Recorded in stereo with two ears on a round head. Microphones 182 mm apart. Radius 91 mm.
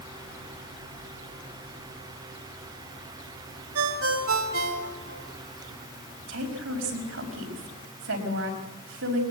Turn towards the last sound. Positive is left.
turn(degrees=-75)  # may be behind; listen again after turning